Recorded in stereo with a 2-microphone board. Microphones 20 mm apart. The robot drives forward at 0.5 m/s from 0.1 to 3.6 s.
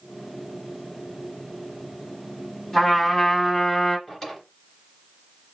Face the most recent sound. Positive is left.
turn(degrees=0)  # may be behind; listen again after turning